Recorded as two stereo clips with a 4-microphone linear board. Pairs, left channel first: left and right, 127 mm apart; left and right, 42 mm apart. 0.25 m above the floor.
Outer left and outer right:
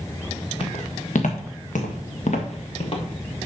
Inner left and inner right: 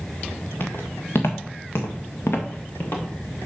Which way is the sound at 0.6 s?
50° left (ahead or behind).